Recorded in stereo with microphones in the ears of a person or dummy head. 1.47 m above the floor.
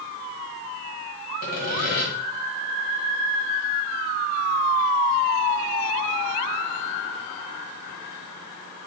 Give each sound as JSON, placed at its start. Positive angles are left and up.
{"t": 1.4, "sound": "sawing", "side_deg": 45, "distance_m": 1.9}